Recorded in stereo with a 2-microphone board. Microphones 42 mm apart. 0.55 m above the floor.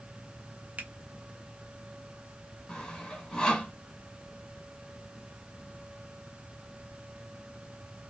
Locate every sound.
0.8 s a finger snap: 35° right (ahead or behind), 0.8 m
2.7 s sawing: 15° left (ahead or behind), 2 m